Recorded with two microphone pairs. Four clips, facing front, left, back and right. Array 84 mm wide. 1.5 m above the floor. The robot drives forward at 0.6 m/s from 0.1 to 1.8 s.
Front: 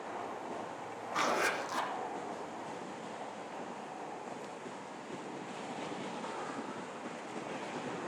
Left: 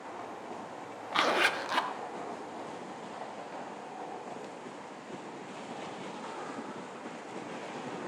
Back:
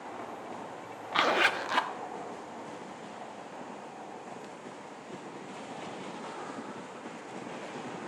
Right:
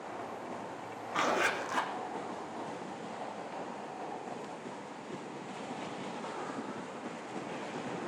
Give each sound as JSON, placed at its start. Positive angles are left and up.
{"t": 1.1, "sound": "a zipper", "azimuth_deg": 160, "distance_m": 1.0}